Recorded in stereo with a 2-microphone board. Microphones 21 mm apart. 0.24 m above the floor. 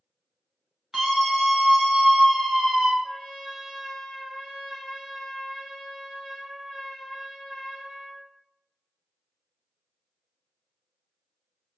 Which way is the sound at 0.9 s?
40° right (ahead or behind).